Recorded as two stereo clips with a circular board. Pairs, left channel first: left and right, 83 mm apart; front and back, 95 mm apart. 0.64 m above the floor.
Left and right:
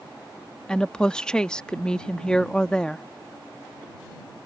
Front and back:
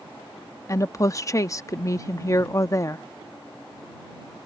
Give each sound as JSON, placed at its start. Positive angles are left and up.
{"t": 0.7, "sound": "a woman speaking", "azimuth_deg": 15}